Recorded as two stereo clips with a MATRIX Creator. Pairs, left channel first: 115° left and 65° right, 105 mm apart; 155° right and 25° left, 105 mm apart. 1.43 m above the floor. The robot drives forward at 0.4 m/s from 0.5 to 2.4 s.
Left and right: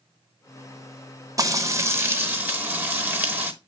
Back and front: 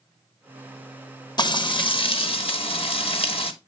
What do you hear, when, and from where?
1.4 s frying: 120° right, 0.8 m; by 3.5 s 140° right, 1.1 m